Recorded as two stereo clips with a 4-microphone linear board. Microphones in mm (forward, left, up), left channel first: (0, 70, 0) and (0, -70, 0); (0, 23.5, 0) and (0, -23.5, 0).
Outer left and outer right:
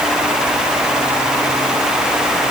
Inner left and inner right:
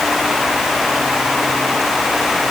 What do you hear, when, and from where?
Only background noise.